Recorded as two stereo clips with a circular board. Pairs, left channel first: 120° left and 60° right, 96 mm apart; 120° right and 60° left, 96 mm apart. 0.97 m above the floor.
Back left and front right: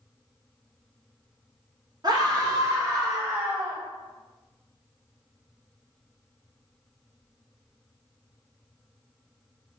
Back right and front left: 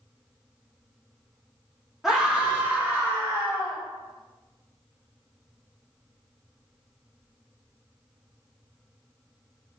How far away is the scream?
About 1.4 m.